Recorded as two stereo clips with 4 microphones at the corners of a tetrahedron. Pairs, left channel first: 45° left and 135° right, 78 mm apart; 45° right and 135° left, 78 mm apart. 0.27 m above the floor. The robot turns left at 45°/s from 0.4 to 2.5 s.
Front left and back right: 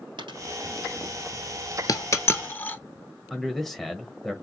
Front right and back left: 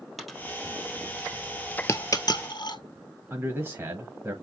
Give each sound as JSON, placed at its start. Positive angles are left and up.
{"t": 0.2, "sound": "a dropped coin", "azimuth_deg": -135, "distance_m": 1.9}
{"t": 1.9, "sound": "a dropped coin", "azimuth_deg": 10, "distance_m": 0.7}
{"t": 3.3, "sound": "a man speaking", "azimuth_deg": 130, "distance_m": 1.1}